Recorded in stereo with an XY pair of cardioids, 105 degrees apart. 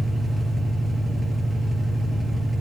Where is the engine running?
25° right, 2.5 m.